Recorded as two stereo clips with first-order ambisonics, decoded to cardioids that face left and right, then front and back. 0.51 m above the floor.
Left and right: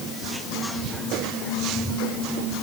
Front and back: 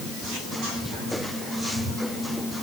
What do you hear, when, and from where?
Only background noise.